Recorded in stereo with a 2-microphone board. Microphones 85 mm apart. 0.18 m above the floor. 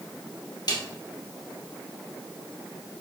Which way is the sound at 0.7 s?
55° left (ahead or behind).